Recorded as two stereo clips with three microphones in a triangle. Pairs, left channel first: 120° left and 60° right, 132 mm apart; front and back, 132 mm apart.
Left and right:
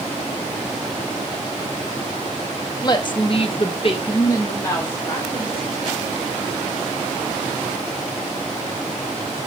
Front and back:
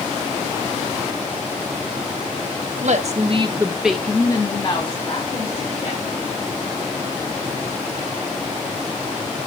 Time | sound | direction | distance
2.8 | a woman speaking | 175° left | 1.0 m